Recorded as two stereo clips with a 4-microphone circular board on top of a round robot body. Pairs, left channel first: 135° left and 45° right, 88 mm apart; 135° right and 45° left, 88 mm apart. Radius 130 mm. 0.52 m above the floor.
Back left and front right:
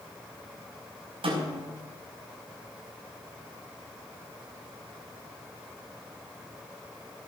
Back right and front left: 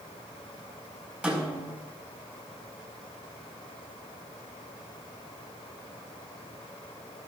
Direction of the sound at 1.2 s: 30° right.